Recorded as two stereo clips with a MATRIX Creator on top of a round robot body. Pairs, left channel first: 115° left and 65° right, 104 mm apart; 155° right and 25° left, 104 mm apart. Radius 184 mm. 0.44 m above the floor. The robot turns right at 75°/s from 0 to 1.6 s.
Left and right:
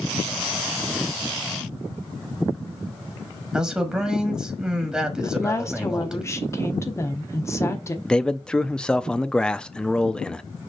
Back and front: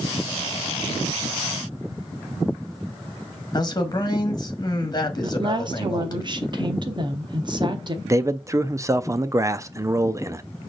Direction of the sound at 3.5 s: 145° right.